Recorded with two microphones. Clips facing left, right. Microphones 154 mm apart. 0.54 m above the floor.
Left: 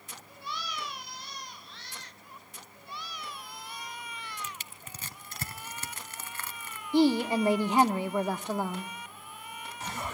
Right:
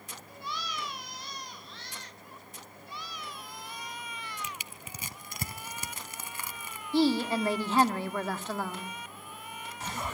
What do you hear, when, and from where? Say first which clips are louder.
4.4 s crushing: right 2 dB; 15° right (ahead or behind), 0.7 m
6.9 s a woman speaking: left 2 dB; 15° left (ahead or behind), 1.0 m